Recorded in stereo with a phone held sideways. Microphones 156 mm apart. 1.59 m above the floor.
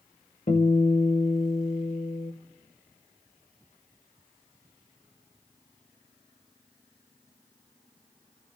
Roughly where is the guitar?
Left.